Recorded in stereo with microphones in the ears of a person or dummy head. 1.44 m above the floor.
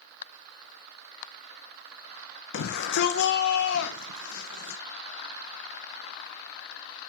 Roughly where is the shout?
Left.